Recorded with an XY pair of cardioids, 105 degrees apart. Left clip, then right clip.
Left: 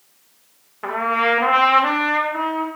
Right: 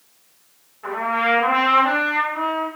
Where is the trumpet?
65° left, 0.6 m.